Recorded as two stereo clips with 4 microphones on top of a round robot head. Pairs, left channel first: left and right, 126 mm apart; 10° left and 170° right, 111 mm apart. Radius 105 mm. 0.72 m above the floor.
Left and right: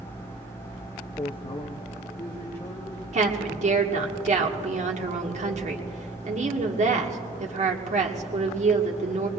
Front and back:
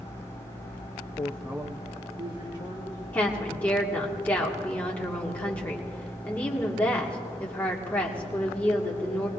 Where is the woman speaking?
65° right, 1.5 m.